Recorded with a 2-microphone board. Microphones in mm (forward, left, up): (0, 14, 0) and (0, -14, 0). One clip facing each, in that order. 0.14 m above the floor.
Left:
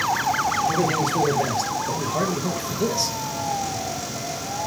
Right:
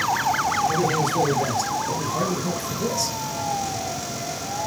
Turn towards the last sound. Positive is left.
turn(degrees=25)  # may be behind; listen again after turning